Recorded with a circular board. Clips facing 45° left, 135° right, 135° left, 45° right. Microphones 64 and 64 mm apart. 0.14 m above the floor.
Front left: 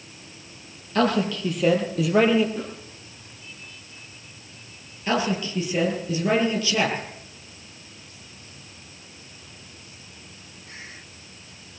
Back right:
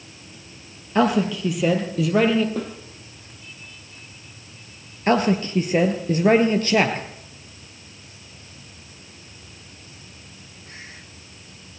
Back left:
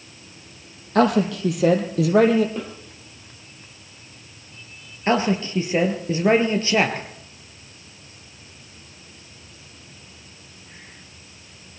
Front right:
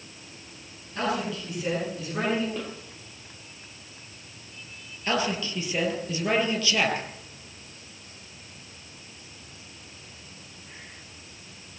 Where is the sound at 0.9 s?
150° left, 4 m; by 2.5 s 125° left, 3.5 m.